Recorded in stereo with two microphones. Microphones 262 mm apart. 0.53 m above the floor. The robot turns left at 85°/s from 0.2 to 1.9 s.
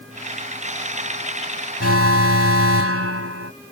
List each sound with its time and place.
1.8 s an alarm: 65° right (ahead or behind); by 3.5 s 60° right (ahead or behind)